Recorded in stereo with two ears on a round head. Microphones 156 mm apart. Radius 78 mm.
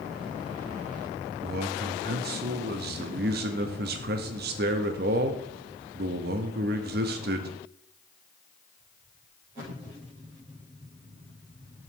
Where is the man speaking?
60° right (ahead or behind), 0.8 m.